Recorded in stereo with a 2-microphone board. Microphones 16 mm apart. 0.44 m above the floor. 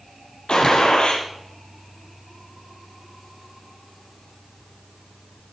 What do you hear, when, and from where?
0.5 s a gunshot: 65° left (ahead or behind), 5 m